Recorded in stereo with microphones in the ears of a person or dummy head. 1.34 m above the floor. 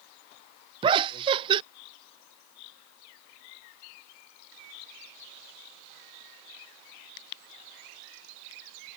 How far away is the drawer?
No drawer in this recording.